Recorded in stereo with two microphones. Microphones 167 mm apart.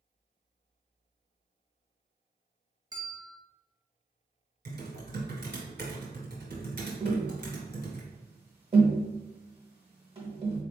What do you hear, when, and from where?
2.9 s a bell: 20° right (ahead or behind), 0.7 m
4.7 s typing on a keyboard: 70° right (ahead or behind), 1.5 m
7.0 s tapping: 35° right (ahead or behind), 1.3 m